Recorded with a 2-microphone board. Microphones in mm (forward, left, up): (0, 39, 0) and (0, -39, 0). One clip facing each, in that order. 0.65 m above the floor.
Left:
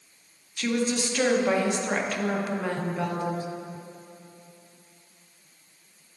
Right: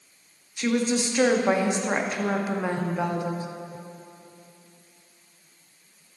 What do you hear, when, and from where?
0.6 s a woman speaking: 20° right (ahead or behind), 0.6 m